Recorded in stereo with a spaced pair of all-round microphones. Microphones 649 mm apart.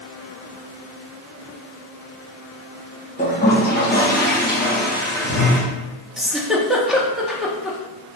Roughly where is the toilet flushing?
Centre.